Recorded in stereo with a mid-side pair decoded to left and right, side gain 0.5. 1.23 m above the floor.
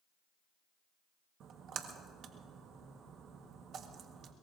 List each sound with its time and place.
1.4 s a splash: 60° right, 1.4 m